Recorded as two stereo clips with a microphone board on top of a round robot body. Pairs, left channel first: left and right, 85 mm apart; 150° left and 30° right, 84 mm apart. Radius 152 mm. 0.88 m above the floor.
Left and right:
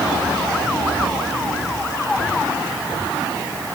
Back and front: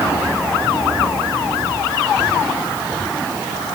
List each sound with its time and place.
Only background noise.